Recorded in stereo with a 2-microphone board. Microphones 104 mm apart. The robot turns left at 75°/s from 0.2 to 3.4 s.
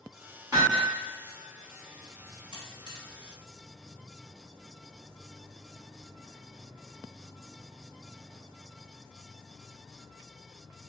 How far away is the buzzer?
About 0.7 m.